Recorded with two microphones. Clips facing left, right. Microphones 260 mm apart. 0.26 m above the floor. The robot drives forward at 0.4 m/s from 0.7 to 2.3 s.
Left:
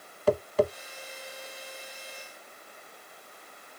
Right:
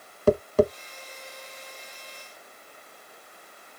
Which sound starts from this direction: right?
Tapping, at 0.3 s.